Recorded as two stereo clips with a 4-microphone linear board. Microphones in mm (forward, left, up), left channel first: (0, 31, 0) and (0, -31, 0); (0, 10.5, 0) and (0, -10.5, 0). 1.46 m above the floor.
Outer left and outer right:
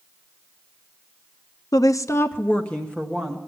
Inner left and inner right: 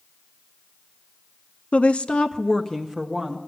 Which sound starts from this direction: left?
A woman speaking, at 1.7 s.